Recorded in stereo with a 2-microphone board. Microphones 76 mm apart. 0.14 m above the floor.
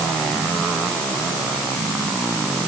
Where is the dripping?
No dripping in this recording.